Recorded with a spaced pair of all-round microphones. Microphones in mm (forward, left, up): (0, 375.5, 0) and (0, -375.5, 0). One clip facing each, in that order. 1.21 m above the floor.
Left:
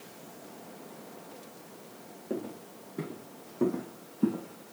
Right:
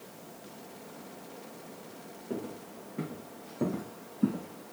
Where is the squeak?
I don't hear a squeak.